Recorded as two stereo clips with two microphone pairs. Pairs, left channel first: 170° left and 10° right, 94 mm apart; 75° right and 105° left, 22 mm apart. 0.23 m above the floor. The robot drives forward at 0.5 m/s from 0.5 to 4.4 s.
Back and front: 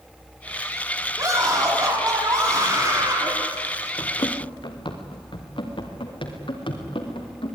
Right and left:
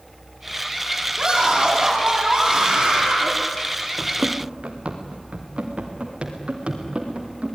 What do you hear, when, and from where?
1.2 s a scream: 35° left, 10 m; by 3.3 s 40° left, 9 m
4.0 s running footsteps: 130° left, 2.5 m; by 7.6 s 145° left, 5.5 m